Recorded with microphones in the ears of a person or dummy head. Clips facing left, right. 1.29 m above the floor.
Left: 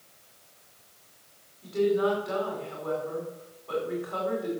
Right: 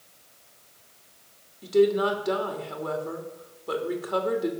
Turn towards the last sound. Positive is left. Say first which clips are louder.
# right 4 dB
turn(degrees=-60)  # may be behind; listen again after turning